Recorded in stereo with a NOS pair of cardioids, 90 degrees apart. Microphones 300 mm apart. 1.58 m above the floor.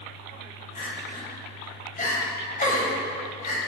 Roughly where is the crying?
Ahead left.